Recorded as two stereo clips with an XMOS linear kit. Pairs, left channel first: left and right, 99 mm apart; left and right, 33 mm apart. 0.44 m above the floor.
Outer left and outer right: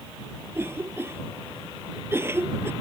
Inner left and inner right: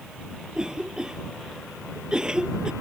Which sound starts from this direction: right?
A cough, at 0.5 s.